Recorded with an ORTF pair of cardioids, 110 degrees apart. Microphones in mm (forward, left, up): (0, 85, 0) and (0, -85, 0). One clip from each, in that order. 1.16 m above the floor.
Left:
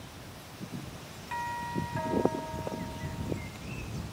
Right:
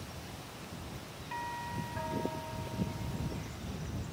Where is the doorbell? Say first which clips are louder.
Left 5 dB; 30° left.